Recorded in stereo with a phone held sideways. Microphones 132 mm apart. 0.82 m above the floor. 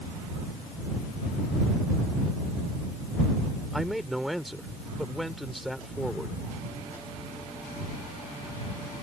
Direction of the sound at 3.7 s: Centre (ahead or behind).